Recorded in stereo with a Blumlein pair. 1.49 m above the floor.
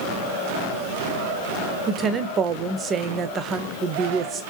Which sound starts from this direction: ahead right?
A woman speaking, at 1.9 s.